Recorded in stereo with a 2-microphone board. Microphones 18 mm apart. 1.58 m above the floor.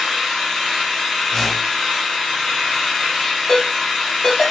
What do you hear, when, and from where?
0.0 s an engine running: 25° left (ahead or behind), 2.5 m
1.3 s a whoosh: 25° left (ahead or behind), 1.3 m
3.5 s a ringtone: 45° left (ahead or behind), 2.5 m